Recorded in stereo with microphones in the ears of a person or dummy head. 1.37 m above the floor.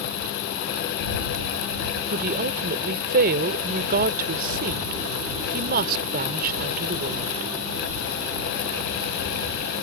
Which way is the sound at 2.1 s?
55° right (ahead or behind).